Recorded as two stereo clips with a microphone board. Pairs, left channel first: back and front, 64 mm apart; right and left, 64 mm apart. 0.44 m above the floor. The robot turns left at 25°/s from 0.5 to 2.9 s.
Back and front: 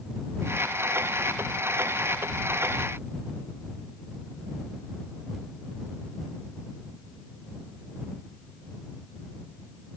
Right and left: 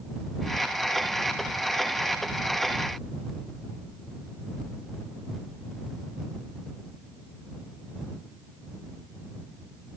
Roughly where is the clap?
No clap in this recording.